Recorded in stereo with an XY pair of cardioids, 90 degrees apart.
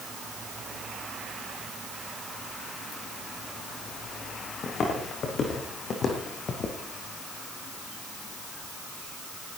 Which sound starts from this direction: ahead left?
Footsteps, at 4.6 s.